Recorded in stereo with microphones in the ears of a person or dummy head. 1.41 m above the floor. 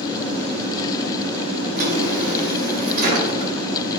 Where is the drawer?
45° right (ahead or behind), 1.4 m.